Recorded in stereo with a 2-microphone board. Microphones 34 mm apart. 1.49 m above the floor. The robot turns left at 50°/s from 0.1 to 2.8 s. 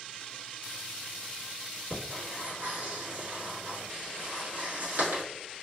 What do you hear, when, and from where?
1.9 s breathing: 25° right (ahead or behind), 1.7 m; by 5.2 s 60° right (ahead or behind), 1.7 m